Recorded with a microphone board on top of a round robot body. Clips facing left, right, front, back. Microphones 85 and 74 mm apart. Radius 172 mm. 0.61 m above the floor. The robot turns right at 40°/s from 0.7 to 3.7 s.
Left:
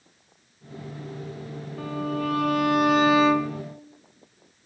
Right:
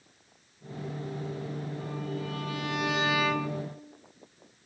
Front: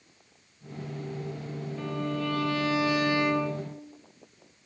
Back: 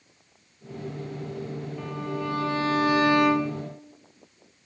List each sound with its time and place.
1.8 s a violin: 90° left, 2 m; by 3.6 s 165° left, 2 m